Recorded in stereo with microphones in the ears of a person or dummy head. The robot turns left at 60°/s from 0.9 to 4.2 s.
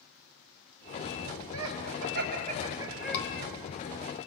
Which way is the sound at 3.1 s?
70° left (ahead or behind).